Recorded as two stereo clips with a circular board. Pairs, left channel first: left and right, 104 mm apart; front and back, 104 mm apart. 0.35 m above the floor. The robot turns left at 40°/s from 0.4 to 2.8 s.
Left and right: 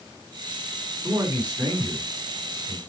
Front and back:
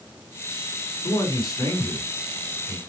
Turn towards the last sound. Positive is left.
turn(degrees=-100)